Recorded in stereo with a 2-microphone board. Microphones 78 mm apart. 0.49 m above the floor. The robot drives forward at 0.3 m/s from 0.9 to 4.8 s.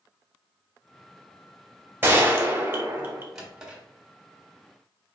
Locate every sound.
2.0 s a gunshot: 30° right (ahead or behind), 0.7 m; by 3.2 s 25° right (ahead or behind), 0.8 m
3.4 s a drawer: 10° right (ahead or behind), 1.0 m